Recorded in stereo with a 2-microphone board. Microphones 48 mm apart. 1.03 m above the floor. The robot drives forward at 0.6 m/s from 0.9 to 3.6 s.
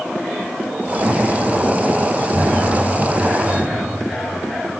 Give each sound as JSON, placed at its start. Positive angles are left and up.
{"t": 1.0, "sound": "footsteps", "side_deg": -60, "distance_m": 2.0}